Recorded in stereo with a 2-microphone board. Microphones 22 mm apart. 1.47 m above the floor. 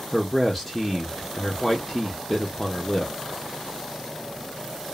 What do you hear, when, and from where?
0.1 s a man speaking: 10° left (ahead or behind), 0.6 m